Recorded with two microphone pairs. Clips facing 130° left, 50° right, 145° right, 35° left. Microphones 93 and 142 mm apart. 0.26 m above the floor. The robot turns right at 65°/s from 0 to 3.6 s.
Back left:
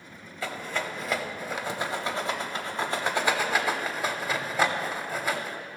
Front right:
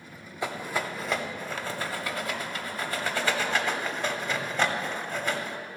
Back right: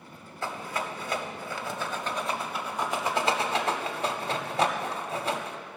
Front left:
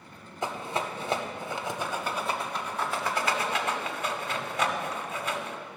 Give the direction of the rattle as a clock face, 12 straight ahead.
12 o'clock.